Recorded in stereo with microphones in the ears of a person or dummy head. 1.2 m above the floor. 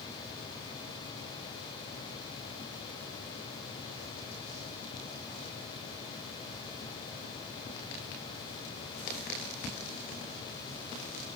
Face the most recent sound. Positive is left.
No sound to turn to.